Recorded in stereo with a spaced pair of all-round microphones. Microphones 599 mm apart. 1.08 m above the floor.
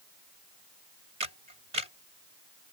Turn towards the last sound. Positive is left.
turn(degrees=-85)